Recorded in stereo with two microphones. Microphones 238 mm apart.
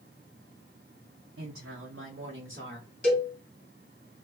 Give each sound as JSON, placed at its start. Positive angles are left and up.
{"t": 1.4, "sound": "a woman speaking", "side_deg": -70, "distance_m": 0.6}
{"t": 3.0, "sound": "a cowbell", "side_deg": 35, "distance_m": 1.6}